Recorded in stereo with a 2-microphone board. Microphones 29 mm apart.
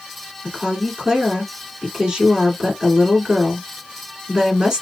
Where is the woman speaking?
20° right (ahead or behind), 1.8 m.